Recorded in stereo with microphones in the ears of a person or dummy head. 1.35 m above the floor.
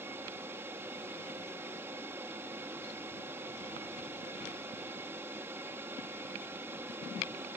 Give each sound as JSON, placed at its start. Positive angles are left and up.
{"t": 0.0, "sound": "an aircraft", "side_deg": -10}